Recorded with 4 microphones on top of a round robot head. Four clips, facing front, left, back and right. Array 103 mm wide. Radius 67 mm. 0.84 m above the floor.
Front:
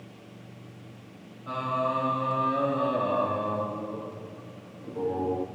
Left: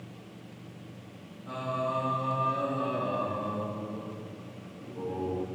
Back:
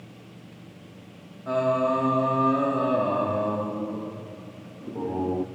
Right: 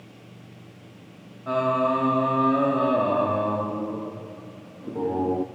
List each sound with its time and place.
1.5 s singing: 115° right, 1.9 m